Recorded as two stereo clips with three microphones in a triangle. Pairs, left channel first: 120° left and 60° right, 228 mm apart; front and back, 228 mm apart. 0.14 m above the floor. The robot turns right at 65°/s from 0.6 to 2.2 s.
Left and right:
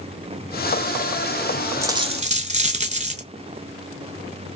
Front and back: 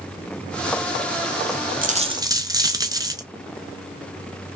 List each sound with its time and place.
1.8 s a dropped coin: 135° right, 0.5 m; by 3.2 s 110° right, 0.5 m